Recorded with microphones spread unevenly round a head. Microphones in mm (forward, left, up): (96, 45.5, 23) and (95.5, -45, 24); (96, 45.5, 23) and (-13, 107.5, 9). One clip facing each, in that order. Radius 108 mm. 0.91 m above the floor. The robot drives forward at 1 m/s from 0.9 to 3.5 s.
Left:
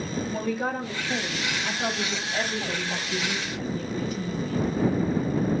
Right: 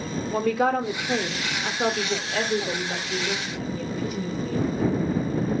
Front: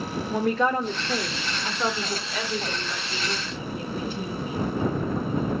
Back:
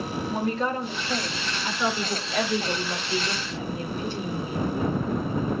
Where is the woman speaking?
90° right, 2 m; by 4.7 s 140° right, 3.5 m.